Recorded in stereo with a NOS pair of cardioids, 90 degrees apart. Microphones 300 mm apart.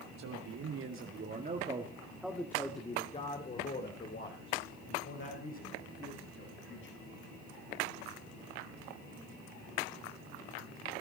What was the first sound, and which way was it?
A man speaking, 65° right.